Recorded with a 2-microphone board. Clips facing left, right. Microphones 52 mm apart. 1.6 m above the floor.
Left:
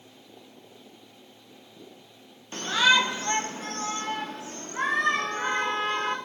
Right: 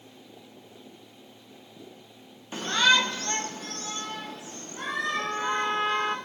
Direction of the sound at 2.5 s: 10° right (ahead or behind).